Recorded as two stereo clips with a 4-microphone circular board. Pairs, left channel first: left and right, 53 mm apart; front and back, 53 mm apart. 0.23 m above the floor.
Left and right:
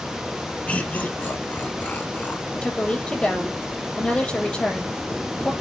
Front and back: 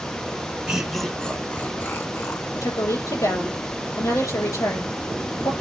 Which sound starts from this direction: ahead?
A woman speaking, at 2.5 s.